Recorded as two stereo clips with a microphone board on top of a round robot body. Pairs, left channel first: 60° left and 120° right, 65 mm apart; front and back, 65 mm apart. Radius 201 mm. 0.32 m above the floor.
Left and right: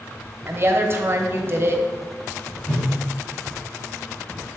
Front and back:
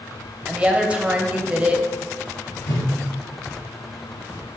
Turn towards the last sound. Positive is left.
turn(degrees=-15)